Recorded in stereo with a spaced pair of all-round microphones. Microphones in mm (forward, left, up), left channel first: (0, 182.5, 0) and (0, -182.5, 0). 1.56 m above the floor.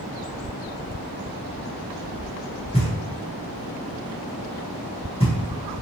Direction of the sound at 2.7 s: 15° left (ahead or behind).